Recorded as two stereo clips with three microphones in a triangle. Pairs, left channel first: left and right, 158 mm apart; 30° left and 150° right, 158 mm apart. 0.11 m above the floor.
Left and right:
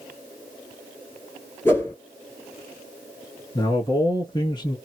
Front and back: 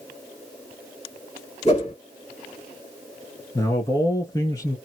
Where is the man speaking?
70° left, 1.2 m.